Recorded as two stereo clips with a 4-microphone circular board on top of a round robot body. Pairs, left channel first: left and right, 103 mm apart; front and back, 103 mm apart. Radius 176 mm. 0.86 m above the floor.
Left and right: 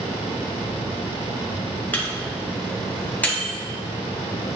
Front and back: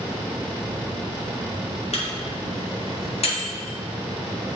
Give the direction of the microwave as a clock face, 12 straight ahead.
11 o'clock.